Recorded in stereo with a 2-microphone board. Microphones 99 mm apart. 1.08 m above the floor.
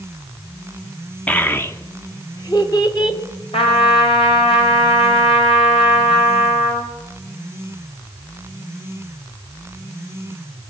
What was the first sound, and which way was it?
A child speaking, 15° left (ahead or behind).